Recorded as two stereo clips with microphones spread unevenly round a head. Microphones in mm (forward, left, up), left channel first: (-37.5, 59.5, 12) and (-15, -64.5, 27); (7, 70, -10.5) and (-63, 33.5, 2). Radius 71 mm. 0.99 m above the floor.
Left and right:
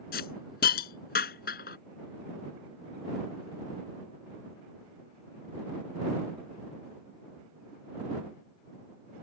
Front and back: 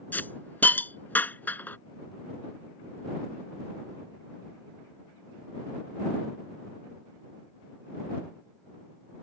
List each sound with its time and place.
0.1 s a hiss: 95° left